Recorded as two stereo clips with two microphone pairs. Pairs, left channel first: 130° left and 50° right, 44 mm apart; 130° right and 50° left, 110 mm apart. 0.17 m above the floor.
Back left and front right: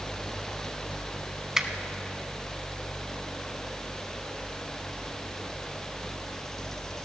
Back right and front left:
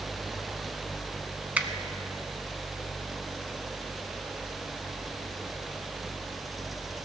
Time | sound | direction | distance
1.6 | a finger snap | straight ahead | 0.8 m